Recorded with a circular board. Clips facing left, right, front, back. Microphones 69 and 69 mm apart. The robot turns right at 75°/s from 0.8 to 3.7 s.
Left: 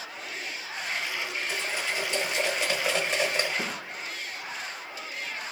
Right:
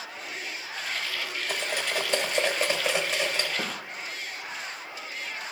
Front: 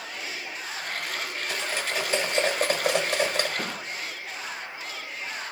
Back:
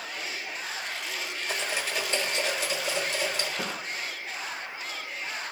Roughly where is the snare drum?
Right.